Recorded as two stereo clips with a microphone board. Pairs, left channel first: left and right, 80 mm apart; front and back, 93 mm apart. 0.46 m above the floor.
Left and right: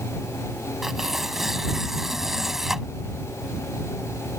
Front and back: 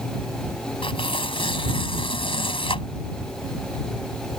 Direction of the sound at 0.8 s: 5° right.